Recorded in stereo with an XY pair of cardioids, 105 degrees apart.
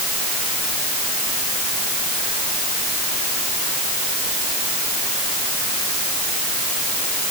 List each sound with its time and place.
Only background noise.